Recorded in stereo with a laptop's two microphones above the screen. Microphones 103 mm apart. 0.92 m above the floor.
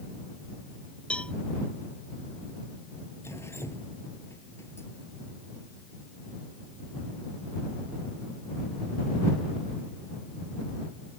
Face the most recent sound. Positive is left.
turn(degrees=25)  # may be behind; listen again after turning